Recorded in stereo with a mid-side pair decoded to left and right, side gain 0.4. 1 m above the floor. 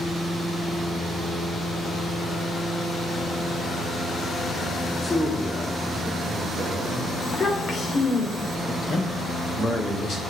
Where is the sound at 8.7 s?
55° left, 3.5 m.